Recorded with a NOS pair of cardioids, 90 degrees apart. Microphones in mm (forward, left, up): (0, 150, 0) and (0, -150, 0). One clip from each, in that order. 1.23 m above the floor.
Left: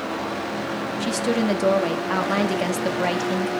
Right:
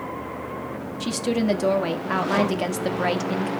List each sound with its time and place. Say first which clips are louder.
1.0 s a woman speaking: left 1 dB; straight ahead, 1.8 m